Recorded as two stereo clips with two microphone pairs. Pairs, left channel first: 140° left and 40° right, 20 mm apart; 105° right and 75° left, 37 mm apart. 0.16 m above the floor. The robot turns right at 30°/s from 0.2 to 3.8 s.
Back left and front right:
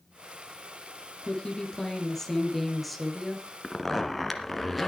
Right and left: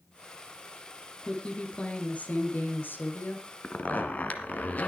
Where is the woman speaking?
175° right, 3 m; by 3.5 s 110° right, 3 m.